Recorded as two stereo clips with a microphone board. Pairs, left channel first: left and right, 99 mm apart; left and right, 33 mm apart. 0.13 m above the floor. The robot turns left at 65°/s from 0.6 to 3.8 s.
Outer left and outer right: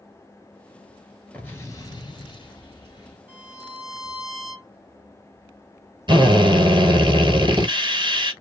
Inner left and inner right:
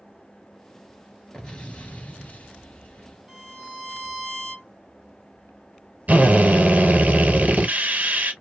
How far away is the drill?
About 1.1 m.